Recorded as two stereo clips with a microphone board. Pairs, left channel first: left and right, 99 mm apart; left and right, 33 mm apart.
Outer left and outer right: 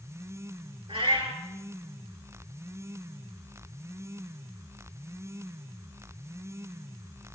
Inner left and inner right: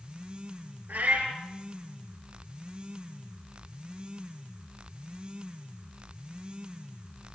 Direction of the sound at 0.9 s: 70° right (ahead or behind).